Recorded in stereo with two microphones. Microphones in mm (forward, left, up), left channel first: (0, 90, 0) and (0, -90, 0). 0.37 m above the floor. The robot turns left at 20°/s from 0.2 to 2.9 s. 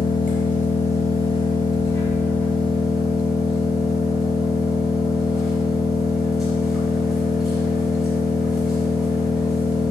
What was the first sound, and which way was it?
An engine running, 55° left.